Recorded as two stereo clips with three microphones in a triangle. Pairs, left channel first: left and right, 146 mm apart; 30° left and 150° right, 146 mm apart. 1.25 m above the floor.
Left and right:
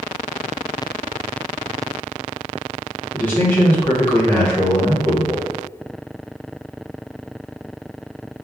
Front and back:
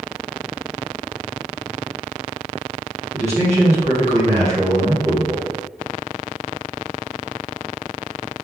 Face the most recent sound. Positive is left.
turn(degrees=170)